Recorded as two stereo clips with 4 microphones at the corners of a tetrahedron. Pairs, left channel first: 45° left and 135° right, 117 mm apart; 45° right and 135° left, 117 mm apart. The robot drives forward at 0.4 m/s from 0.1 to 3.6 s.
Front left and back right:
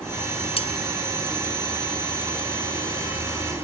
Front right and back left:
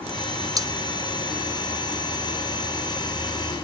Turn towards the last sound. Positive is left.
turn(degrees=115)